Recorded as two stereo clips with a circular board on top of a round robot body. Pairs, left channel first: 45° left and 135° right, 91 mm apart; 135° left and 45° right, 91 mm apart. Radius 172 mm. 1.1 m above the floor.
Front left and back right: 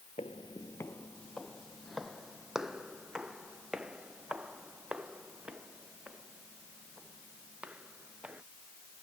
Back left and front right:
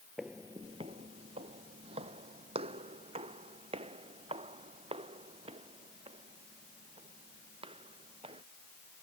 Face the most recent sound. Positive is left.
turn(degrees=-55)